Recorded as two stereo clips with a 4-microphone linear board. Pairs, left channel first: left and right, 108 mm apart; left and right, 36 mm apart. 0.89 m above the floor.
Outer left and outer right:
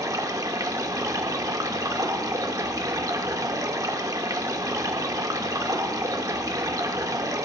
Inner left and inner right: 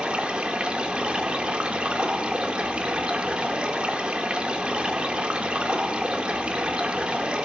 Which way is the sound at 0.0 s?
30° right (ahead or behind).